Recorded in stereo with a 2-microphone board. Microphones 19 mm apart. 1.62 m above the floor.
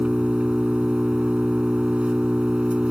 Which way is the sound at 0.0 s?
75° right (ahead or behind).